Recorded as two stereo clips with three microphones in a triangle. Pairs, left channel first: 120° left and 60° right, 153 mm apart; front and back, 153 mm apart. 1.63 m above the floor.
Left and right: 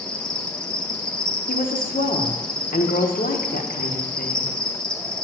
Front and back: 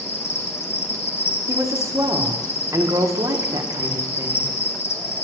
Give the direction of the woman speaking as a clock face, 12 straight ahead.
8 o'clock.